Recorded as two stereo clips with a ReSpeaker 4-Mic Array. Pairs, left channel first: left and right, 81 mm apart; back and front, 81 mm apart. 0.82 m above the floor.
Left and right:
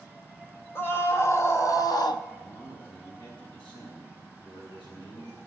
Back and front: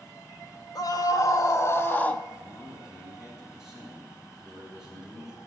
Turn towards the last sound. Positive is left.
turn(degrees=85)